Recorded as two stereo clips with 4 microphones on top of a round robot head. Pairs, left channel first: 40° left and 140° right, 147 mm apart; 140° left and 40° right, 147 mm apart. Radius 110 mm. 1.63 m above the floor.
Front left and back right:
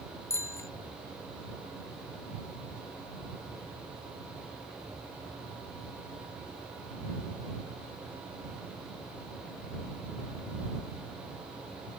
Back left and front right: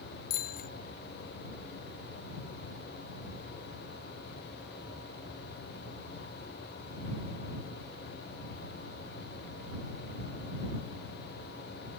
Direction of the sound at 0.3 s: 110° left.